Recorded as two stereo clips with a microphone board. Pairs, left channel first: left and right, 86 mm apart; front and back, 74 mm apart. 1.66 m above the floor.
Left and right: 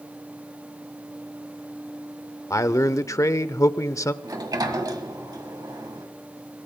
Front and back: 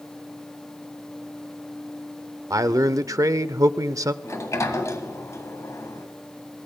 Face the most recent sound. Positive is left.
turn(degrees=-50)